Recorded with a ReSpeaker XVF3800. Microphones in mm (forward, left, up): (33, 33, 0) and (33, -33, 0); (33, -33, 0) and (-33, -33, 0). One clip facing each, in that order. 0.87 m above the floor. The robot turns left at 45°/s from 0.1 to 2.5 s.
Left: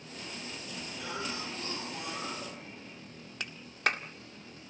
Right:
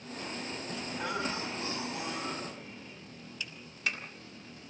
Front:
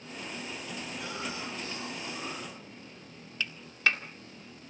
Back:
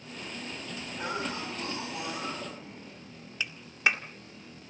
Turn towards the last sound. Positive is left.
turn(degrees=105)